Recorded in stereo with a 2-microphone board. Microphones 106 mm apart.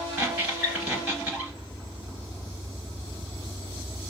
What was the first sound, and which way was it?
A squeak, 15° right (ahead or behind).